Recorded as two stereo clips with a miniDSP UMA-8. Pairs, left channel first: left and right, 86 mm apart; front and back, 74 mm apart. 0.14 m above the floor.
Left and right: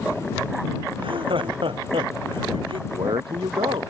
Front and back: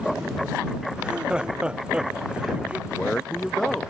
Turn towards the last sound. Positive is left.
turn(degrees=-80)